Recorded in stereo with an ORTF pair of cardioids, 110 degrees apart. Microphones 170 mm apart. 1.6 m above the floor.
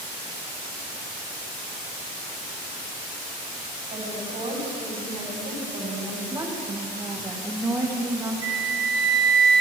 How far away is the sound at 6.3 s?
About 2.5 m.